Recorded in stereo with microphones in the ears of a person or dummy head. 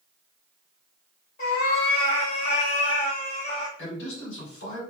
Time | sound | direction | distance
1.4 | a cat meowing | 50° left (ahead or behind) | 1.5 m
3.8 | a man speaking | 70° left (ahead or behind) | 2 m